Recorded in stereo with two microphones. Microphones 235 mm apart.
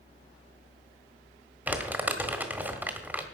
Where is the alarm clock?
I don't hear an alarm clock.